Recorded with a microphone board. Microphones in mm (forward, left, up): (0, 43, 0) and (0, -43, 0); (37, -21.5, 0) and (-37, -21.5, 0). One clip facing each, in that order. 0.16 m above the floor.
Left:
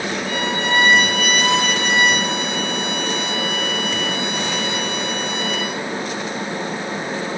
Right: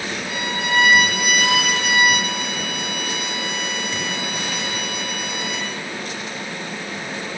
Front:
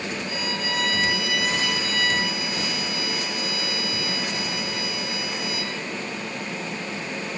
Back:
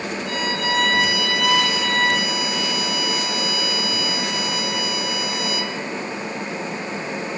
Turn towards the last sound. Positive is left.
turn(degrees=-175)